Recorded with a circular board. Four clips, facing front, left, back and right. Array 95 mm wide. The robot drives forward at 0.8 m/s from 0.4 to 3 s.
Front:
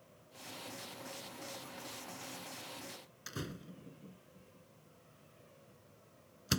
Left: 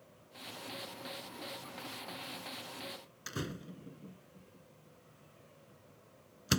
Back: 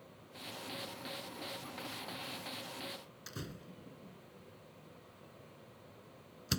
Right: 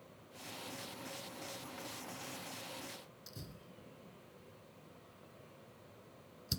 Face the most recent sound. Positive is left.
turn(degrees=75)